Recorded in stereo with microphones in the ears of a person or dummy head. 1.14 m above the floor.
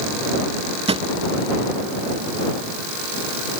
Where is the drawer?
30° right (ahead or behind).